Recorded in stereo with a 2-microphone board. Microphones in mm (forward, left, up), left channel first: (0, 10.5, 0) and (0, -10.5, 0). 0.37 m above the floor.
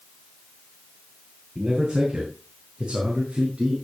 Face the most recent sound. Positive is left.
turn(degrees=-50)  # may be behind; listen again after turning